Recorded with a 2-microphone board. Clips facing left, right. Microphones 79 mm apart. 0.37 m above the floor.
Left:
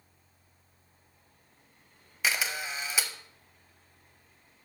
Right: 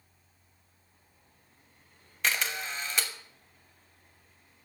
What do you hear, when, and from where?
2.2 s a camera shutter: 5° left (ahead or behind), 1.0 m